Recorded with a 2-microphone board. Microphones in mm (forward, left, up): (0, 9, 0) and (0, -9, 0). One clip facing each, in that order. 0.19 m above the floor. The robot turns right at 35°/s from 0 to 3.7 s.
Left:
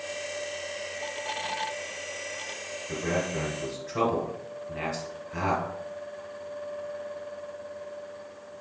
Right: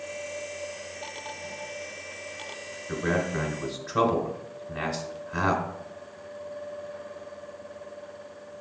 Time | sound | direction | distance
2.9 | a man speaking | 10° right (ahead or behind) | 1.2 m